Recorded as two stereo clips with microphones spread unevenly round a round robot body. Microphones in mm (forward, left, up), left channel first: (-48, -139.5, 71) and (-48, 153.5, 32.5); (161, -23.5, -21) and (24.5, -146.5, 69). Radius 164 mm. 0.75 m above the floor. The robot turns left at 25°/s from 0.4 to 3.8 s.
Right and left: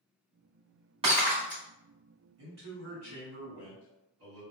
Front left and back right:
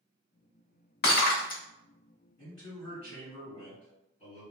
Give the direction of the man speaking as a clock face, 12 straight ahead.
8 o'clock.